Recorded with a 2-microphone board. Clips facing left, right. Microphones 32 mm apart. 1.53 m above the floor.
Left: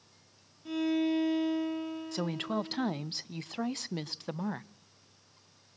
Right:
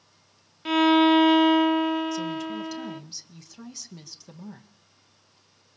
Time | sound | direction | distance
0.7 | a violin | 85° right | 0.5 m
2.1 | a woman speaking | 55° left (ahead or behind) | 0.5 m